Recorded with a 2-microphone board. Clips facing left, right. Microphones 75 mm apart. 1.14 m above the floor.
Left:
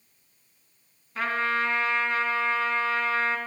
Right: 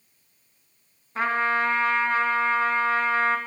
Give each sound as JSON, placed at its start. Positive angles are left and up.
{"t": 1.1, "sound": "a trumpet", "side_deg": -35, "distance_m": 3.0}